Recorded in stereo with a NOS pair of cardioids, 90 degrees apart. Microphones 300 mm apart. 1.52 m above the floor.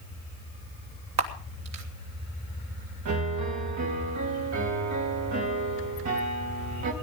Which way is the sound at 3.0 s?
65° right.